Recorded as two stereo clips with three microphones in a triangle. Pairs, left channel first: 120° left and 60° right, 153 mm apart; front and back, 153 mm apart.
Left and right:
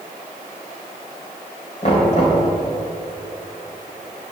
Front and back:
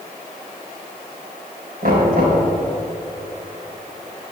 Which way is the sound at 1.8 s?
165° left.